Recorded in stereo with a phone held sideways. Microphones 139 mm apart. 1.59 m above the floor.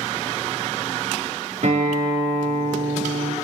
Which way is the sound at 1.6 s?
65° right (ahead or behind).